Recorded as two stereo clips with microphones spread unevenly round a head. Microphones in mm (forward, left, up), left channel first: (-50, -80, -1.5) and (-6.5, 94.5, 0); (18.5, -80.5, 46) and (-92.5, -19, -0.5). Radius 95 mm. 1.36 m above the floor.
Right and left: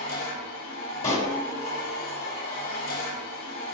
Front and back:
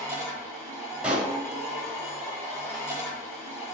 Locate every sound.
0.0 s a machine running: 100° right, 3 m
1.0 s a pop: 100° right, 1.3 m